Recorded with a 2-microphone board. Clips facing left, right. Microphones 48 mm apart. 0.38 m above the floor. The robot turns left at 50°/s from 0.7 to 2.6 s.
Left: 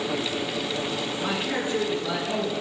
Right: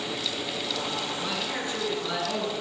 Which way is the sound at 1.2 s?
50° left.